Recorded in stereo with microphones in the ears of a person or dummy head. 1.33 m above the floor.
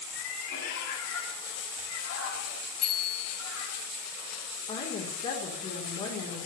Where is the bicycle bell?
45° left (ahead or behind), 5.5 m.